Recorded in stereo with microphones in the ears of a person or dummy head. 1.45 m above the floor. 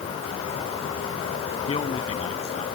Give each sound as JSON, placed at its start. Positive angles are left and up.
{"t": 1.7, "sound": "a man speaking", "side_deg": 25}